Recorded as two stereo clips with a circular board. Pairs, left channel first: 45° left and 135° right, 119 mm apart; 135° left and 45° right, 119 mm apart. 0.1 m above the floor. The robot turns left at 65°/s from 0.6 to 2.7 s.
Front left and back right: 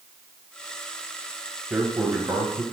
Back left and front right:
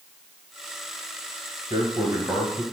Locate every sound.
1.7 s a man speaking: 60° right, 1.2 m; by 2.6 s 120° right, 1.2 m